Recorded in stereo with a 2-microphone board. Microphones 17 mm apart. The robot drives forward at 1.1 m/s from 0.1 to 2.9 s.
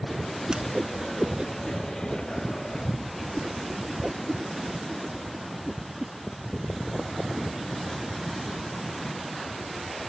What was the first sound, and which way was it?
A whoosh, 55° right (ahead or behind).